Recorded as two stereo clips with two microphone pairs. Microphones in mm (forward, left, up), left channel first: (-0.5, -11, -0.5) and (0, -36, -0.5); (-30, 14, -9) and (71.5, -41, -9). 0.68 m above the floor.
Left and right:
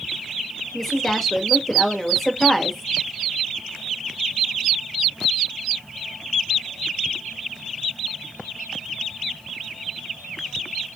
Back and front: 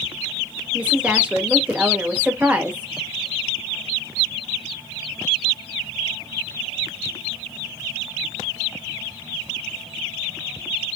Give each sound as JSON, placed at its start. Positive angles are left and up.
{"t": 0.7, "sound": "a woman speaking", "azimuth_deg": 25, "distance_m": 1.1}